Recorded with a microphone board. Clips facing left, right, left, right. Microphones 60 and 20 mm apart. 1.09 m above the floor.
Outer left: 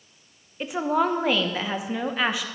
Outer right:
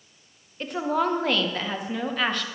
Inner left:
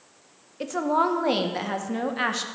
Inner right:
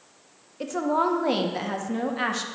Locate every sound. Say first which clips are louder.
0.6 s a woman speaking: outer left 2 dB, inner left 1 dB; 10° left (ahead or behind), 1.1 m